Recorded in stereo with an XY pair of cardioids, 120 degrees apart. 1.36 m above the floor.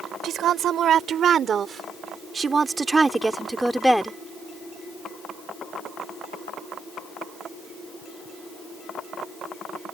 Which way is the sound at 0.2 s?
60° right.